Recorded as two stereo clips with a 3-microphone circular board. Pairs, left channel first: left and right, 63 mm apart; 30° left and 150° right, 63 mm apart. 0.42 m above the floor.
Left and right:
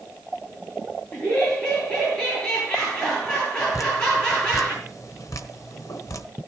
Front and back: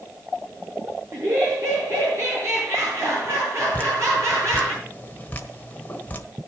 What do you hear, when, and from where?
1.1 s laughter: 165° left, 9.5 m
3.7 s dripping: 90° left, 1.4 m